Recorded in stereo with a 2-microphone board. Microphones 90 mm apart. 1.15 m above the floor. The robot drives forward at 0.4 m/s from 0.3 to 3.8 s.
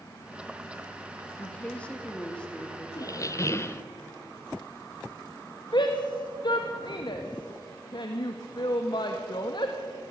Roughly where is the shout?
Left.